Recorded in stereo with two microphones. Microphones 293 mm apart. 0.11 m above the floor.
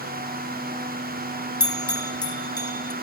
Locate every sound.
1.6 s a bell: 30° left (ahead or behind), 0.7 m